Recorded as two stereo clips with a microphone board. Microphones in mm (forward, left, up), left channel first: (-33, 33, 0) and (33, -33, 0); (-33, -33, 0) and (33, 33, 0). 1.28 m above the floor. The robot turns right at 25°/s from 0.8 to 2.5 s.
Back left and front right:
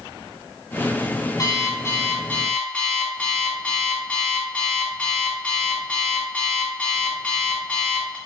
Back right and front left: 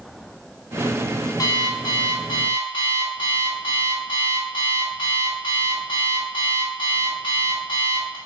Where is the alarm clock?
Straight behind, 1.9 m; by 8.2 s 150° right, 1.9 m.